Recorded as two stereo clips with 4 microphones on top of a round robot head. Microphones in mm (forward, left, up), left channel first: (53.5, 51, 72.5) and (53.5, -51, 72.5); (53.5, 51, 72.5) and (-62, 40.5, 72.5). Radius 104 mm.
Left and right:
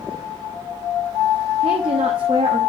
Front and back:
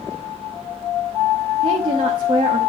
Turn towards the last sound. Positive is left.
turn(degrees=-130)